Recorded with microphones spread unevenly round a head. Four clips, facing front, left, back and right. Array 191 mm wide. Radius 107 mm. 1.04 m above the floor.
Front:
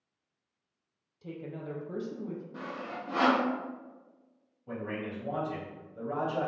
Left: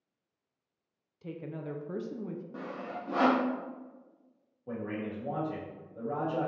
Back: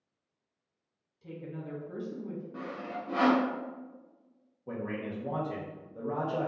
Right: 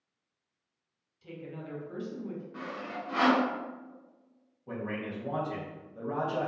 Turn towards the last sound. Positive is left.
turn(degrees=155)